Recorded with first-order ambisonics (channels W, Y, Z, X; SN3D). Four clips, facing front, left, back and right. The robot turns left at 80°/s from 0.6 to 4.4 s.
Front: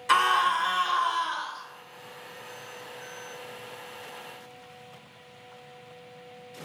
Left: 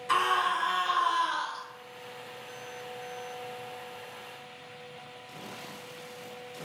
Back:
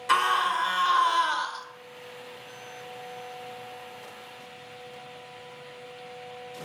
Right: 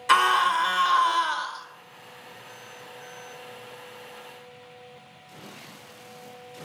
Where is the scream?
95° right, 0.8 m; by 1.6 s 175° right, 0.8 m.